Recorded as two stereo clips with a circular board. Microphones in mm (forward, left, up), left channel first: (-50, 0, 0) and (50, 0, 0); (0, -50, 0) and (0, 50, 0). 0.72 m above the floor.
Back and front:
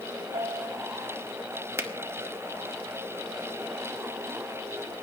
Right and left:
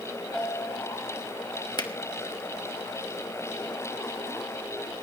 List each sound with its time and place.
0.3 s a bell: straight ahead, 4.5 m
1.8 s a finger snap: 55° right, 1.3 m